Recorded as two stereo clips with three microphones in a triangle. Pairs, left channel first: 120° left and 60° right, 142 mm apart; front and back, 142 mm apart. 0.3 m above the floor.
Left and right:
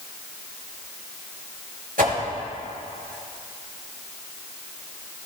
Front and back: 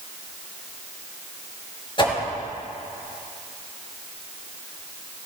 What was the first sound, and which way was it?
A whoosh, 55° right.